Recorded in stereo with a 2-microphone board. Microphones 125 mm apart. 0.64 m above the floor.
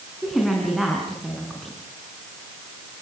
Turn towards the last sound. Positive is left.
turn(degrees=0)  # may be behind; listen again after turning